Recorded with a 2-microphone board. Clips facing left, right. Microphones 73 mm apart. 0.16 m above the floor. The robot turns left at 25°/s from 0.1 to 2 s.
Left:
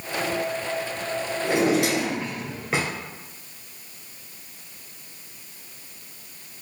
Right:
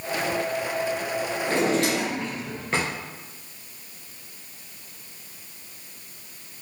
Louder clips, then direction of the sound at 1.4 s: Left 2 dB; 15° left (ahead or behind).